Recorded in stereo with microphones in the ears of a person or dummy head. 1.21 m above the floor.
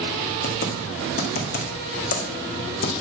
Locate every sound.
0.4 s typing on a keyboard: 55° left (ahead or behind), 1.8 m